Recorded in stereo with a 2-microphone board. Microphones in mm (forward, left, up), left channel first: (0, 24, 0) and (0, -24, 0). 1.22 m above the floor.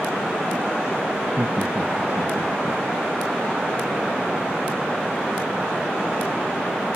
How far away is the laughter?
About 2.5 m.